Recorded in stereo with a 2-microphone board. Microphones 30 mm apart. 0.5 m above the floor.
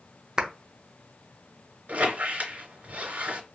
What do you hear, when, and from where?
0.4 s a clap: 25° right (ahead or behind), 0.5 m
1.9 s a squeak: 55° right (ahead or behind), 2 m